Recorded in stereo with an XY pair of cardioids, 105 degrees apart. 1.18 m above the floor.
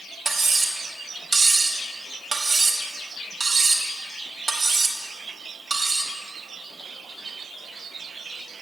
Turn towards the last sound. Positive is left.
turn(degrees=-25)